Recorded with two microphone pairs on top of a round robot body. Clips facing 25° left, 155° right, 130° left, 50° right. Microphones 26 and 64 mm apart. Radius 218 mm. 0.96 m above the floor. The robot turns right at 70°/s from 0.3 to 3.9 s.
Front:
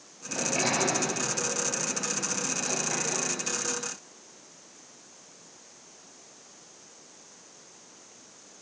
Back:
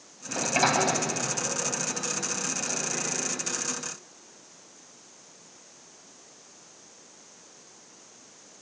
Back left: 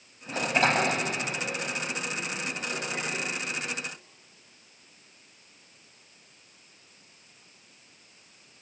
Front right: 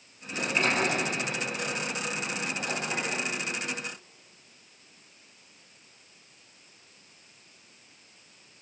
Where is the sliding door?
135° left, 4 m; by 3.3 s 15° right, 4 m.